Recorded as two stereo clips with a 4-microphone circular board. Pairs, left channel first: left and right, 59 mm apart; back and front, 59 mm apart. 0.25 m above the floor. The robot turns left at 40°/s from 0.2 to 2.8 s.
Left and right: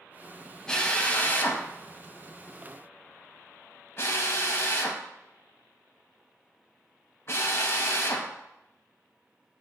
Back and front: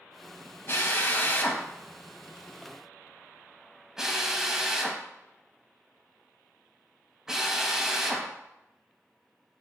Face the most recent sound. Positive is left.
turn(degrees=75)